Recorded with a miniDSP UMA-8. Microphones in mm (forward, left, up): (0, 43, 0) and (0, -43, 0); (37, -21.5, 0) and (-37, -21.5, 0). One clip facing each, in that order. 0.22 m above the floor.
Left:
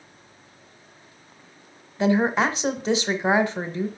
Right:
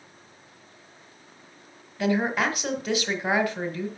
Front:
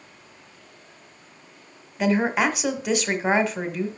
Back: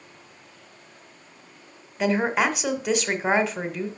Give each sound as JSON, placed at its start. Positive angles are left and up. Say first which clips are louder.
{"t": 2.0, "sound": "a woman speaking", "louder": "left 4 dB, front 1 dB", "azimuth_deg": 90, "distance_m": 1.1}